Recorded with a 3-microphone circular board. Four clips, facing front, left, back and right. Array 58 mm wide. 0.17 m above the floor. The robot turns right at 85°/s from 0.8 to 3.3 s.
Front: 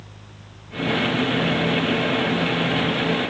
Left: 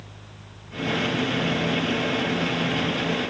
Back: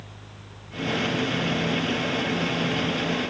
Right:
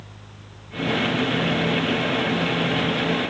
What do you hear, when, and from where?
Only background noise.